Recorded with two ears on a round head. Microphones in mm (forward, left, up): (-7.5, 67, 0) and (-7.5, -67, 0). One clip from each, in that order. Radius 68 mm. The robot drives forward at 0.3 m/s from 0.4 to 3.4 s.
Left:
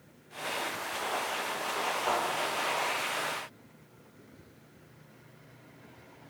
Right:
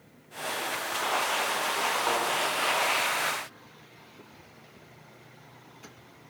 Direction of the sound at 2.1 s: 35° right (ahead or behind).